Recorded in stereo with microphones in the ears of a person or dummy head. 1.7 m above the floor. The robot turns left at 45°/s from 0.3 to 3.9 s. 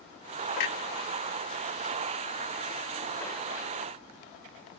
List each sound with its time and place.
0.6 s a clunk: 50° left (ahead or behind), 0.7 m; by 3.7 s 10° right (ahead or behind), 0.7 m